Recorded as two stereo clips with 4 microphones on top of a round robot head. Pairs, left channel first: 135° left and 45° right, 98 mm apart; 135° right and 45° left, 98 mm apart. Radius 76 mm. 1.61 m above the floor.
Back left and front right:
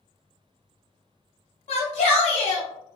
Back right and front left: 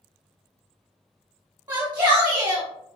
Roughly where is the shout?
Behind left.